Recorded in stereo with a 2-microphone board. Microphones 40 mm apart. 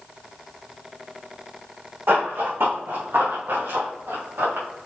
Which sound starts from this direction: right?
Running footsteps, at 2.1 s.